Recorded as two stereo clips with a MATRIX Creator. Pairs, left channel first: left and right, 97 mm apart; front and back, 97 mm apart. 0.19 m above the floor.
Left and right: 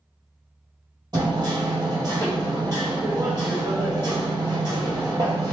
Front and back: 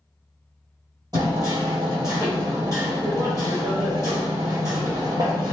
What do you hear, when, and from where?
1.1 s hammering: 130° right, 1.6 m